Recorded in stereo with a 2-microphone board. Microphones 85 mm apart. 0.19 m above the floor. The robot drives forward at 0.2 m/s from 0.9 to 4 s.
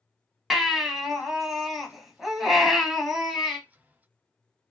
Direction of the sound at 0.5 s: Centre (ahead or behind).